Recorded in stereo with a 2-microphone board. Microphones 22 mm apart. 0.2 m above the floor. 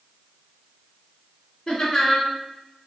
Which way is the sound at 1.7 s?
30° left (ahead or behind).